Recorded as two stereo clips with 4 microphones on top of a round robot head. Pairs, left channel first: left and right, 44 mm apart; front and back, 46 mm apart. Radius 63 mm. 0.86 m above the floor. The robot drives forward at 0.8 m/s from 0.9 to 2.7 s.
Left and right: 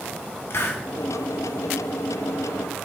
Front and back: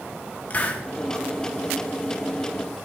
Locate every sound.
0.5 s a hiss: 55° left, 1.6 m